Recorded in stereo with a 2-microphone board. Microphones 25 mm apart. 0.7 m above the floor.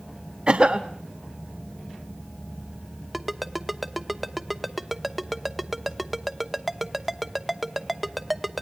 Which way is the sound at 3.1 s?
Centre (ahead or behind).